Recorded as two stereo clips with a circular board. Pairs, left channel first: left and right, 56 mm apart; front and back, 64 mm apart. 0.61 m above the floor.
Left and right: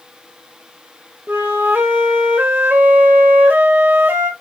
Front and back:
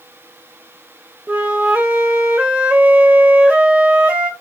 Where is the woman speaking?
No woman speaking in this recording.